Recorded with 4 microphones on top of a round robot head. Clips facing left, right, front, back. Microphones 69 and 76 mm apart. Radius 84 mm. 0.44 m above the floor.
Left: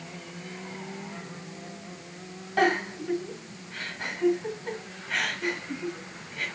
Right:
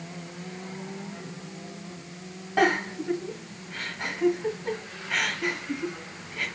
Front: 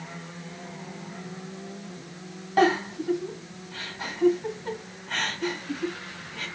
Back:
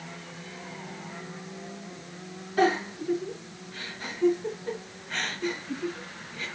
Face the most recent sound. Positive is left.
turn(degrees=-20)